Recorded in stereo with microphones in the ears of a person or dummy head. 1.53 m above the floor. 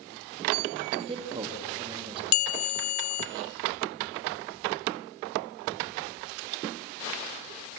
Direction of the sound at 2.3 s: 75° left (ahead or behind).